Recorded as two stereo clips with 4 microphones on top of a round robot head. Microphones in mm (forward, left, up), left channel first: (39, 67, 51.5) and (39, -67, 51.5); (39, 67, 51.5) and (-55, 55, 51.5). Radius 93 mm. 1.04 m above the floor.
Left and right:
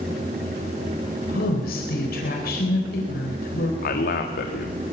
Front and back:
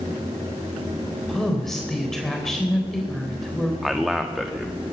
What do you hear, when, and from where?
1.3 s a woman speaking: 95° left, 4 m
3.8 s a man speaking: 100° left, 1.7 m